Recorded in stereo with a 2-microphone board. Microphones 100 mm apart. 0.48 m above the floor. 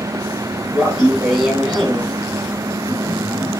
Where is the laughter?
5° right (ahead or behind), 5 m; by 3.5 s 20° left (ahead or behind), 5 m.